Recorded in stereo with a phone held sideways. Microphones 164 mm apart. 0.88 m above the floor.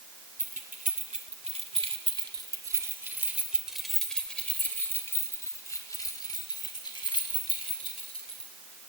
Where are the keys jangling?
60° right (ahead or behind), 2 m; by 8.5 s 35° left (ahead or behind), 4.5 m.